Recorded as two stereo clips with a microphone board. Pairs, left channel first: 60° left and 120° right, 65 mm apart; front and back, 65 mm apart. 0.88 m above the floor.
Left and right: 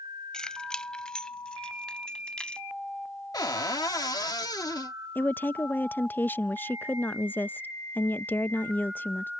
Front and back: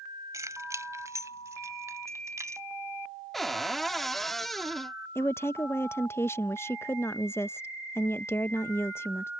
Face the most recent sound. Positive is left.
turn(degrees=20)